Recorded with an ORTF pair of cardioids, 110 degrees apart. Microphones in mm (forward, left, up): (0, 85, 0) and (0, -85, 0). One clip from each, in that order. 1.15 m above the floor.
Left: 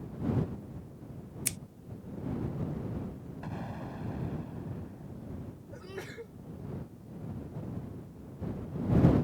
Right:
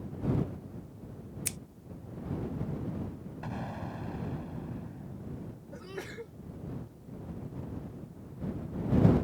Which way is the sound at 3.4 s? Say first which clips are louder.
Right 2 dB; 15° right.